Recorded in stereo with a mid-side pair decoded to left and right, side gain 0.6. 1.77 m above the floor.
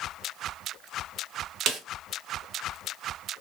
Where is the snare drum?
45° right, 1.1 m.